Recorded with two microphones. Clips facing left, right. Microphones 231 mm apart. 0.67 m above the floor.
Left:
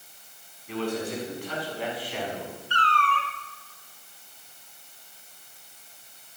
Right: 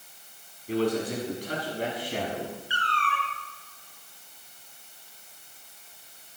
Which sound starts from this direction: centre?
A cat meowing, at 2.7 s.